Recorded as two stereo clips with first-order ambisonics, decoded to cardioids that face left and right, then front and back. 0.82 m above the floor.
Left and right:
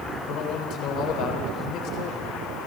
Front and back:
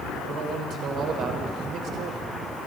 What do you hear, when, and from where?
0.3 s a man speaking: 130° left, 3.5 m